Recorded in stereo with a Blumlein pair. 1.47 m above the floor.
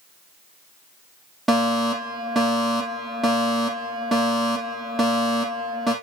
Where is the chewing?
I don't hear chewing.